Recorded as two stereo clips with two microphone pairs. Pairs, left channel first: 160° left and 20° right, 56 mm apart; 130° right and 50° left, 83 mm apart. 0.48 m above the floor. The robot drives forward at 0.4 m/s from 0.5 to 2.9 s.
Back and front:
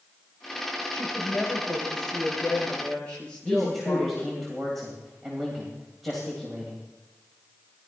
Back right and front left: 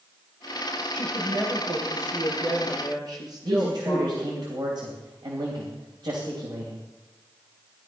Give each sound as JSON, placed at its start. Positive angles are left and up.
{"t": 0.9, "sound": "a woman speaking", "azimuth_deg": 85, "distance_m": 7.0}
{"t": 3.4, "sound": "a man speaking", "azimuth_deg": 70, "distance_m": 2.5}